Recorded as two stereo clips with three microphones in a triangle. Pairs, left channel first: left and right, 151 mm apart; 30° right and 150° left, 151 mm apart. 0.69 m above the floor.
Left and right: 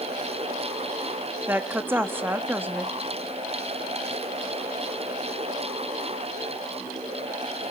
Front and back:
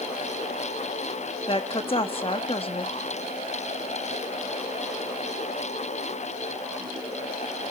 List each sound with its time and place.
1.5 s a woman speaking: 20° right, 0.8 m